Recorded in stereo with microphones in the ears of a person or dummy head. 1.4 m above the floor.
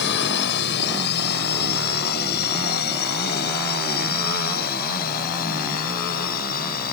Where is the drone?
65° left (ahead or behind); by 7.0 s 50° left (ahead or behind).